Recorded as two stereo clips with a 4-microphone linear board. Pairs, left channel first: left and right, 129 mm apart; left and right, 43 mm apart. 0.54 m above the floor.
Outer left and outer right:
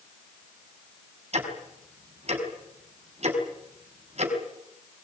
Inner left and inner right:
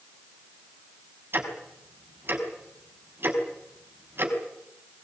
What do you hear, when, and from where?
1.3 s ticking: 55° right (ahead or behind), 5 m